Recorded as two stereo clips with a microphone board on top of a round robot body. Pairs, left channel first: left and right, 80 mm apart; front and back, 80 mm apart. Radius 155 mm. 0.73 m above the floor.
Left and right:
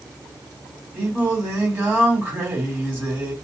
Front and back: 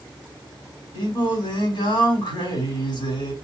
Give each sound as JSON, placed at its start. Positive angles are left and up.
{"t": 0.9, "sound": "singing", "azimuth_deg": -15, "distance_m": 3.5}